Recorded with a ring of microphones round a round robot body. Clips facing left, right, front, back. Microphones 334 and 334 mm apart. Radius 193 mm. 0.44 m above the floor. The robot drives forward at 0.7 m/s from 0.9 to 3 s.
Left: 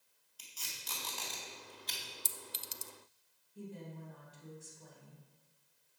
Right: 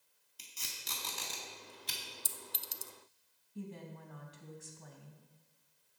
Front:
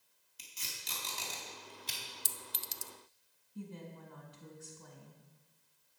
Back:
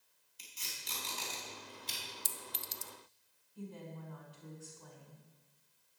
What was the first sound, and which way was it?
Tape being pulled, 30° right.